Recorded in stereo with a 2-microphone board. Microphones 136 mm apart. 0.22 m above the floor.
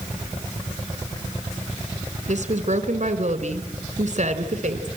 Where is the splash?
No splash in this recording.